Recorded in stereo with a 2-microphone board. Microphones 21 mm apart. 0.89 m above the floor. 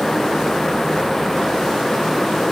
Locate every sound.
Only background noise.